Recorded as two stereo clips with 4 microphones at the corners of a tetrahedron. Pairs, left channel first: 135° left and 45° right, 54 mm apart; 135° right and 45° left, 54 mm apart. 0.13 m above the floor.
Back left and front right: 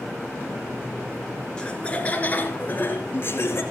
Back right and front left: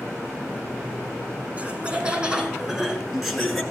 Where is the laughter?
75° left, 1.3 m; by 3.6 s 135° left, 1.7 m.